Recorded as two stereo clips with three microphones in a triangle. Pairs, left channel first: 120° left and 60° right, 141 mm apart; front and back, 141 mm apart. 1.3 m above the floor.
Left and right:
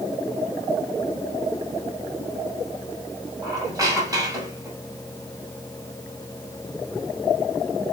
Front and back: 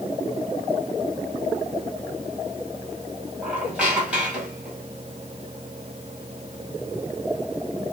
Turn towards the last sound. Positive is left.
turn(degrees=-100)